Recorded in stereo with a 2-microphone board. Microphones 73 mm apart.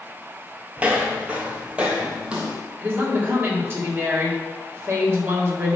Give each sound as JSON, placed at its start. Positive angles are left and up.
{"t": 0.8, "sound": "footsteps", "side_deg": -20, "distance_m": 1.1}
{"t": 2.8, "sound": "a woman speaking", "side_deg": -35, "distance_m": 1.9}